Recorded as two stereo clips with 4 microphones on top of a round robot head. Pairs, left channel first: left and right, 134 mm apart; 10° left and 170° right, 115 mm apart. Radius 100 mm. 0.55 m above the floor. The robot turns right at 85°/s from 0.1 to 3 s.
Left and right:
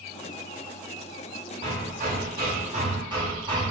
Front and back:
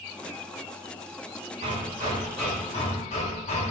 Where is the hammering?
150° right, 1.8 m; by 3.7 s 35° right, 1.8 m.